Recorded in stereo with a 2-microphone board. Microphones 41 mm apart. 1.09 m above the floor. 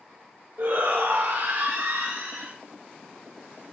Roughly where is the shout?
Right.